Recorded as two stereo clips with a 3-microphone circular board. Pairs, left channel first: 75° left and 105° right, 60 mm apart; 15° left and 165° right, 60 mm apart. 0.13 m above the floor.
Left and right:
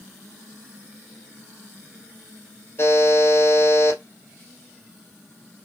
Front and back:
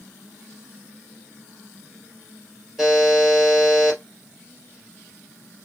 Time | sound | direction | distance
2.8 | a buzzer | 110° left | 3 m